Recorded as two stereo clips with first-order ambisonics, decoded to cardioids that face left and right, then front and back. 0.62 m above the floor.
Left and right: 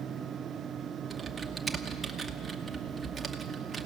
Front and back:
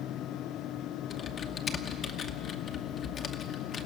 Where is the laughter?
No laughter in this recording.